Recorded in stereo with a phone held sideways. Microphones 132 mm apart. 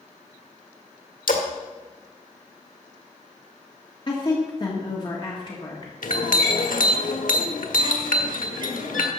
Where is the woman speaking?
35° left (ahead or behind), 1.8 m.